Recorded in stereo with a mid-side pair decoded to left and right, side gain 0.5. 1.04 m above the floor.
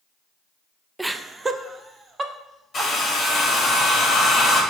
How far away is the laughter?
About 0.5 m.